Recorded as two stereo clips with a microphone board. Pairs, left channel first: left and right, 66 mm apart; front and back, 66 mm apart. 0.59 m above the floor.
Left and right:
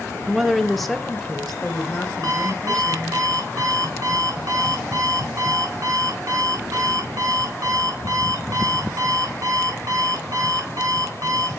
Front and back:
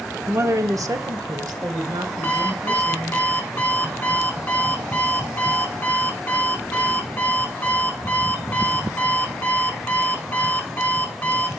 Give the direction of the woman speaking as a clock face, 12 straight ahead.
6 o'clock.